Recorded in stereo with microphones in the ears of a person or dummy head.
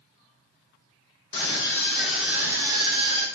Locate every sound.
1.3 s a scream: 25° left (ahead or behind), 1.0 m; by 3.2 s 40° right (ahead or behind), 1.3 m